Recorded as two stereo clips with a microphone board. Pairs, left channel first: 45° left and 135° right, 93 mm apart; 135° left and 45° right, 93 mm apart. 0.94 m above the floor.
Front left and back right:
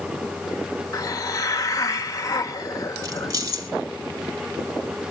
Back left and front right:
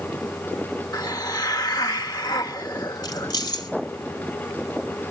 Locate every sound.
0.9 s a hiss: 95° left, 1.2 m
3.0 s keys jangling: straight behind, 2.5 m